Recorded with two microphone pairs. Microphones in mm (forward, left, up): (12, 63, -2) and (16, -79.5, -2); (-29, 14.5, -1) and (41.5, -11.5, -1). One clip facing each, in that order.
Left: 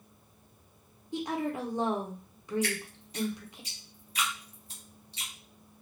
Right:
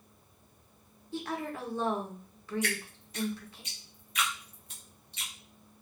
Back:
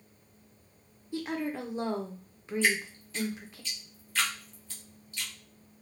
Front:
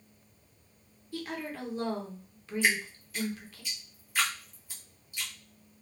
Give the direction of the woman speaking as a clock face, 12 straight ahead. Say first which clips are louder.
Left 4 dB, back 4 dB; 8 o'clock.